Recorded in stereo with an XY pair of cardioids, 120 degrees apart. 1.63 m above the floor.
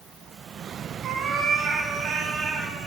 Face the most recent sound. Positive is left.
turn(degrees=-65)